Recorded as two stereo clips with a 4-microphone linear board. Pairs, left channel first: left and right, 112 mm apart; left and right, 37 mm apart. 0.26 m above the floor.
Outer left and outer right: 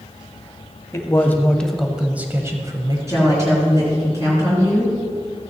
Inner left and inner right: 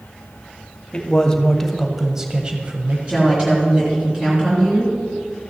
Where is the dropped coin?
No dropped coin in this recording.